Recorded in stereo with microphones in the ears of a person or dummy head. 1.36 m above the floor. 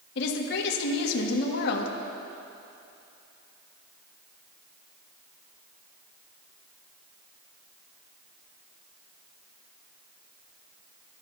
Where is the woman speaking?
70° left (ahead or behind), 1.6 m.